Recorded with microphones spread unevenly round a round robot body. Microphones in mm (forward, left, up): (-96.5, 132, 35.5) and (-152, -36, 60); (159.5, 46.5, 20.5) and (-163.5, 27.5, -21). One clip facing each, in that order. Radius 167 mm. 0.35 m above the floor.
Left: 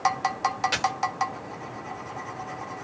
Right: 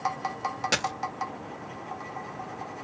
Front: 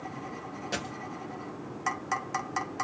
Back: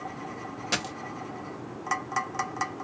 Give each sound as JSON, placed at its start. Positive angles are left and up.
{"t": 0.7, "sound": "a dropped coin", "azimuth_deg": -140, "distance_m": 0.5}